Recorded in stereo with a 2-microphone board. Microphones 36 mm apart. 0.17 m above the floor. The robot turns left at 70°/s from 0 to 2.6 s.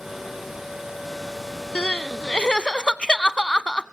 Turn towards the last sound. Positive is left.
turn(degrees=50)